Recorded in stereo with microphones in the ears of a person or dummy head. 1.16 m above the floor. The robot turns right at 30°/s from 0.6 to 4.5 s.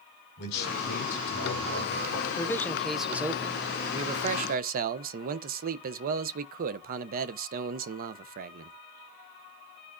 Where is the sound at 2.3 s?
160° left, 0.5 m; by 8.7 s 135° right, 0.5 m.